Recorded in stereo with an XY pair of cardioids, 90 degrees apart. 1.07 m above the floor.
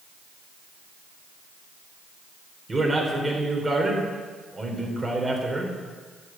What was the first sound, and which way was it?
A man speaking, 25° right.